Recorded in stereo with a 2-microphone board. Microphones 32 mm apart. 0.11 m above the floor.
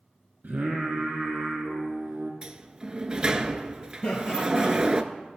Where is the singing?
60° right (ahead or behind), 2.5 m.